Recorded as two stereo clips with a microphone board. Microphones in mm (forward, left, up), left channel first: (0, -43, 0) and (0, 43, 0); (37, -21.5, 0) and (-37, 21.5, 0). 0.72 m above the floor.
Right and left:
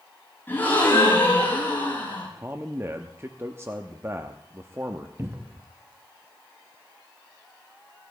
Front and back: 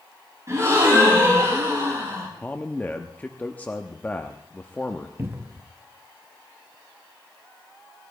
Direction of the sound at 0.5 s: 155° right.